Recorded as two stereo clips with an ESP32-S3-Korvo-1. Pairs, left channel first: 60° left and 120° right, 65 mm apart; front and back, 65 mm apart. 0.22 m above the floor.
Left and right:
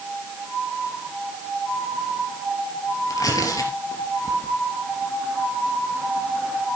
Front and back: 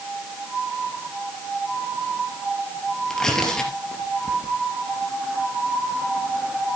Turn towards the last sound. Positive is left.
turn(degrees=80)